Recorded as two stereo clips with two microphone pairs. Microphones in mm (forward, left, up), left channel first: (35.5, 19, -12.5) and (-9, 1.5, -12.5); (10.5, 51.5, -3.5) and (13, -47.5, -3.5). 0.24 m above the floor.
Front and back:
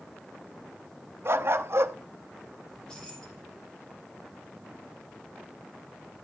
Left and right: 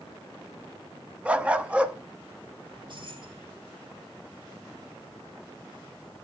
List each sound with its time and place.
1.2 s a dog barking: 165° right, 0.9 m
2.7 s keys jangling: 55° right, 5.5 m